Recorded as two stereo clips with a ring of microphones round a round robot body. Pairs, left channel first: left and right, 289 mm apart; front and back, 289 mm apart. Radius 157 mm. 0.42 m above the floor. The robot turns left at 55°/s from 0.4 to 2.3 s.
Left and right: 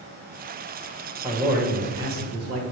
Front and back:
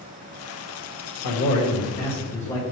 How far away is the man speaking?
About 1.5 m.